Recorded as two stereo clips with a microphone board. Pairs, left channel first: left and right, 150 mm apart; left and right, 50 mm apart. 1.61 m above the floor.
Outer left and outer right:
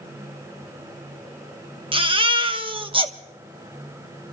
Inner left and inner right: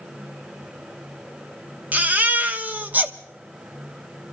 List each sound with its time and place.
1.9 s a baby crying: 35° right (ahead or behind), 0.9 m